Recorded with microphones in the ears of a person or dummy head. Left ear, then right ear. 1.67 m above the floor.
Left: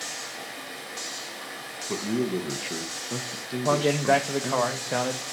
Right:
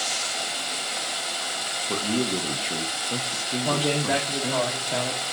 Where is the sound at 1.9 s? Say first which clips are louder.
Even; 5° left (ahead or behind), 1.1 m.